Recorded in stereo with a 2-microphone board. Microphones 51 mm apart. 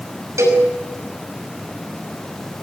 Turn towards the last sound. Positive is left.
turn(degrees=-75)  # may be behind; listen again after turning